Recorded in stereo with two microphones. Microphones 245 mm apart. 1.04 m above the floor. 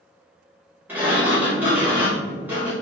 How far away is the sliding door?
About 1.5 m.